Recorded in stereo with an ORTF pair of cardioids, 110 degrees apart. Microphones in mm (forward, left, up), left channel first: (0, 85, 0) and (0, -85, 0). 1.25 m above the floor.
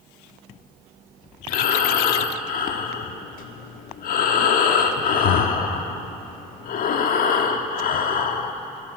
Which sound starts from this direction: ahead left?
Breathing, at 1.5 s.